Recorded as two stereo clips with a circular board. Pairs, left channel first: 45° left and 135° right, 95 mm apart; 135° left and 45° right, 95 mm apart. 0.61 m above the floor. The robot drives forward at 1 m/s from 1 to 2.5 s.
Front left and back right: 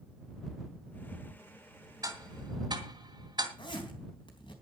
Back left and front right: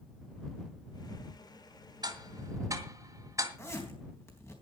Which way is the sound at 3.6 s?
75° left.